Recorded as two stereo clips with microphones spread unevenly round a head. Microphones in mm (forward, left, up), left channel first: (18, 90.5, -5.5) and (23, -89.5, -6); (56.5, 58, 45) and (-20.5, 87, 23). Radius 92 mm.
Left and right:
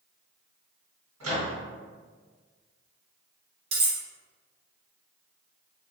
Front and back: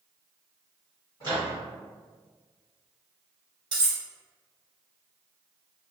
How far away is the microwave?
About 1.5 m.